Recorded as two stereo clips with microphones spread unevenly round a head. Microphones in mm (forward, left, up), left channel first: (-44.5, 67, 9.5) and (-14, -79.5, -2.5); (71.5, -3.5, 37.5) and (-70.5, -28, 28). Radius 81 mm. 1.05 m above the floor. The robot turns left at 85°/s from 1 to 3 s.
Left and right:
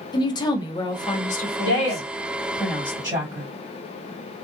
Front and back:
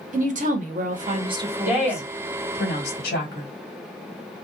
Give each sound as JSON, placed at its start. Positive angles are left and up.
{"t": 0.1, "sound": "a woman speaking", "azimuth_deg": 165, "distance_m": 0.8}
{"t": 1.6, "sound": "a woman speaking", "azimuth_deg": 105, "distance_m": 1.9}